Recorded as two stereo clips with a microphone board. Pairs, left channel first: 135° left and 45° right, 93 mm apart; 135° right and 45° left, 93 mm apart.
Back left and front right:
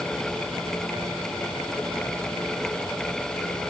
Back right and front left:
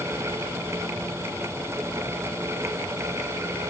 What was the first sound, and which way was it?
Only background noise.